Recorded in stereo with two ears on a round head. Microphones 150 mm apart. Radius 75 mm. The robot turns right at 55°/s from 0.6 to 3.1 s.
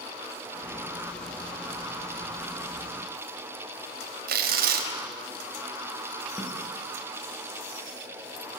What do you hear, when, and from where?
4.3 s tearing paper: 60° right (ahead or behind), 3.5 m
6.4 s a snare drum: 10° left (ahead or behind), 7.5 m